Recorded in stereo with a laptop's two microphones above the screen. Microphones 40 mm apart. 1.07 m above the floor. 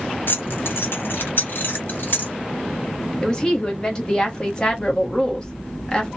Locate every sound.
0.3 s keys jangling: 65° left (ahead or behind), 0.6 m; by 2.3 s 55° left (ahead or behind), 1.5 m
3.2 s a woman speaking: 20° left (ahead or behind), 0.9 m